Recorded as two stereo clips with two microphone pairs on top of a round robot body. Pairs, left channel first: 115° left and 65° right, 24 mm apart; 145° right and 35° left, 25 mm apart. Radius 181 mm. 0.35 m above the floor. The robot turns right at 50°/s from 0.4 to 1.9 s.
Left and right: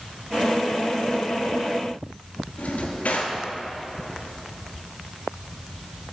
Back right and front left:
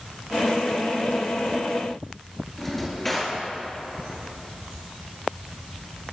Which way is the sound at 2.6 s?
135° left.